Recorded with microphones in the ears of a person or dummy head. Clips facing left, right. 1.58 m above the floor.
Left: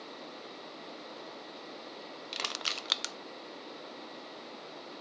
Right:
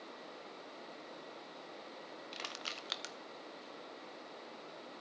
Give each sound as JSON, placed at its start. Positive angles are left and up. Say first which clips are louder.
{"t": 2.3, "sound": "crushing", "louder": "left 5 dB", "side_deg": 65, "distance_m": 0.5}